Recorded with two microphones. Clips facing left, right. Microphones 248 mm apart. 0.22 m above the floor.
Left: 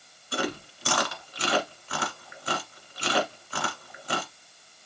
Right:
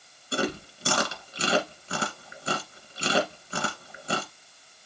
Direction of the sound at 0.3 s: 25° right (ahead or behind).